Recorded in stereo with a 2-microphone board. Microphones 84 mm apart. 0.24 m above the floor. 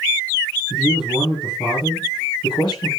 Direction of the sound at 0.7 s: 65° left (ahead or behind).